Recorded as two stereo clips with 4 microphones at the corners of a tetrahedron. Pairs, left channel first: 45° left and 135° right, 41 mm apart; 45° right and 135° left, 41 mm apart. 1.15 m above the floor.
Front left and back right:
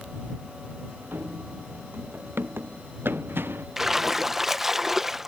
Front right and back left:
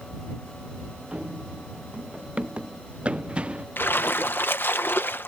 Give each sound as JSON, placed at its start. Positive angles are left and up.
{"t": 1.1, "sound": "running footsteps", "azimuth_deg": -165}
{"t": 3.8, "sound": "a splash", "azimuth_deg": -55}